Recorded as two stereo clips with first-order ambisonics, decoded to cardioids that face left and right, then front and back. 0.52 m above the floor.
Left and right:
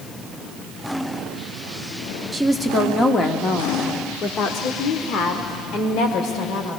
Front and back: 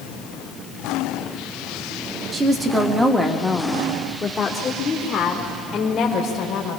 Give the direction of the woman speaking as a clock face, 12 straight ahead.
6 o'clock.